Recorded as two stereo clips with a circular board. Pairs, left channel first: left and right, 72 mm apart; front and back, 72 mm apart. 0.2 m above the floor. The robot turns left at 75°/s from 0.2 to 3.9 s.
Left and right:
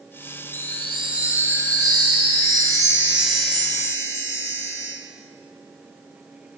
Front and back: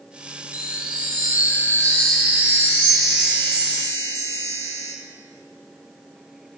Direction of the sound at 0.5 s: 30° left.